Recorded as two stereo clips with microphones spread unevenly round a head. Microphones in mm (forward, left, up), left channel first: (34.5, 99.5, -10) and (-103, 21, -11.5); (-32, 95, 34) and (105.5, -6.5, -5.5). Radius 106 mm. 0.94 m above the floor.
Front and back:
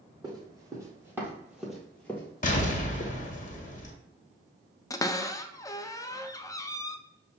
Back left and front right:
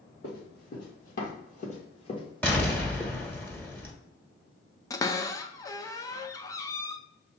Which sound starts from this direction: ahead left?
An explosion, at 2.4 s.